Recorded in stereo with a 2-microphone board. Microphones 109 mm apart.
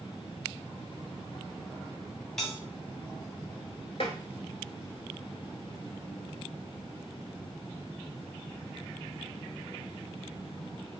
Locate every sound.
2.4 s a bell: 5° left (ahead or behind), 1.9 m
4.0 s tapping: 60° left (ahead or behind), 0.7 m